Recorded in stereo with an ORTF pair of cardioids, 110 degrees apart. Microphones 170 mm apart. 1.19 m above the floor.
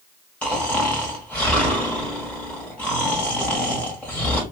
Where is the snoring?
5° left, 1.5 m.